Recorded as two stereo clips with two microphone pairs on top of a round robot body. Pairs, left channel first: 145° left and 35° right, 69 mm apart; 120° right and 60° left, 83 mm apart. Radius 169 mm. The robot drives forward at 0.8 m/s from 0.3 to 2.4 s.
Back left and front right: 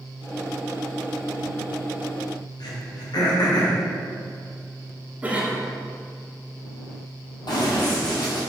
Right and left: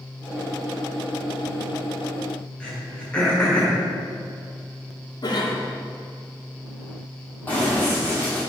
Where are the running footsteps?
165° left, 1.5 m.